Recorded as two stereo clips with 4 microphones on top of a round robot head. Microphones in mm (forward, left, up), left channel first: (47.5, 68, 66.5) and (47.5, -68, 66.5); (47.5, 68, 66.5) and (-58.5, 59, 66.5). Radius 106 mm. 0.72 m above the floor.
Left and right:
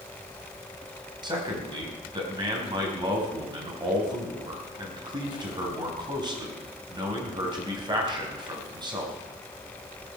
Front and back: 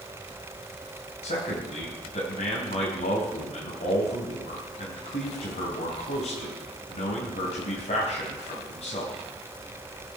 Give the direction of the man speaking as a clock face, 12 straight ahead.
1 o'clock.